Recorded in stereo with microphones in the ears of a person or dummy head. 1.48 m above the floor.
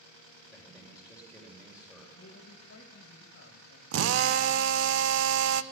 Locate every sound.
0.5 s a man speaking: 5° right (ahead or behind), 4 m
2.2 s a man speaking: 60° left (ahead or behind), 1.8 m
3.9 s a drill: 65° right (ahead or behind), 0.6 m